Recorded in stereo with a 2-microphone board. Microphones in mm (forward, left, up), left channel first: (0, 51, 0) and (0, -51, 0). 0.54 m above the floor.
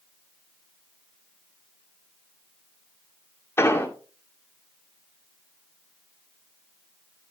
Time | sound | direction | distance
3.6 | an explosion | 25° left (ahead or behind) | 1.7 m